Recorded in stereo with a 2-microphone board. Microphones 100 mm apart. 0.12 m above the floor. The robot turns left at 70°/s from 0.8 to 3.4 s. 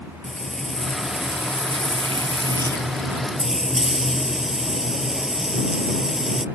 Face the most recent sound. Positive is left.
turn(degrees=-175)